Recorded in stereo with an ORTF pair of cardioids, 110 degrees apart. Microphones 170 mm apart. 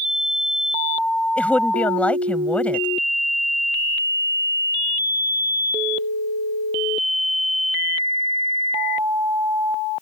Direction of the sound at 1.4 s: 5° left.